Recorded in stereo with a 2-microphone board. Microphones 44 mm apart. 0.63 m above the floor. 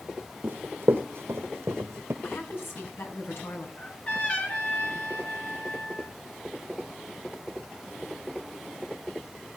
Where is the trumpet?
30° left (ahead or behind), 4 m.